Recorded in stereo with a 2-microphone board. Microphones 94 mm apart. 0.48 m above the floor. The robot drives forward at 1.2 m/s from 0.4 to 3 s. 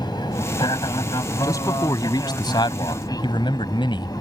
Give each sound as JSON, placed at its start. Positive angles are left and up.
{"t": 0.0, "sound": "an aircraft", "side_deg": 50}
{"t": 1.4, "sound": "a man speaking", "side_deg": 35}